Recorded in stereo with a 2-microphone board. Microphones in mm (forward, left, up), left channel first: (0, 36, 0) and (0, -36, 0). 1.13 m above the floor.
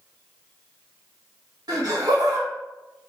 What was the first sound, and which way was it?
Laughter, 65° right (ahead or behind).